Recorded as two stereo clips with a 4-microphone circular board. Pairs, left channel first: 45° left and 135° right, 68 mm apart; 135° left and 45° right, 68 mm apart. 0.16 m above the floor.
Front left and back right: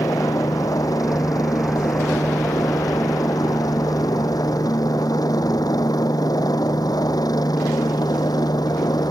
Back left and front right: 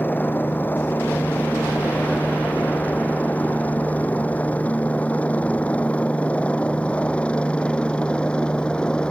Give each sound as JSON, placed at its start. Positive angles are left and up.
{"t": 0.0, "sound": "a helicopter", "azimuth_deg": 75}